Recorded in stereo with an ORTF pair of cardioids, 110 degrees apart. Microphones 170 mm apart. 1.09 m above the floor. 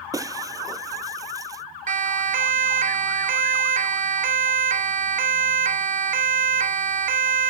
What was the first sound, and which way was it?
Breaking glass, 20° right.